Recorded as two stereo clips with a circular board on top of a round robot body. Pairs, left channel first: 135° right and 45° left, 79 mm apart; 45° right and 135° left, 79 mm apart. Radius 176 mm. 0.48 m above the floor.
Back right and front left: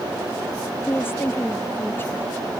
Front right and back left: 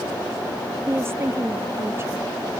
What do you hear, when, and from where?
0.9 s a woman speaking: 175° left